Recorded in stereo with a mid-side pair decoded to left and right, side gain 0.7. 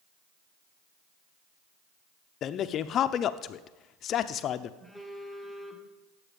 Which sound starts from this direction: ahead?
A phone buzzing, at 4.8 s.